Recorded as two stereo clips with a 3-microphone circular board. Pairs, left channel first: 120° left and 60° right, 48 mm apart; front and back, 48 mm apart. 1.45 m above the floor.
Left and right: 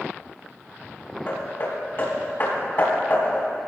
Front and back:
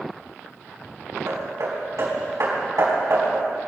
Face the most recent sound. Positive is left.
turn(degrees=165)